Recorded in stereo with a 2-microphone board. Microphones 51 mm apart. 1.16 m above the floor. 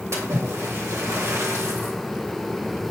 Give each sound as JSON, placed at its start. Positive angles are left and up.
{"t": 0.1, "sound": "a splash", "side_deg": -60, "distance_m": 2.0}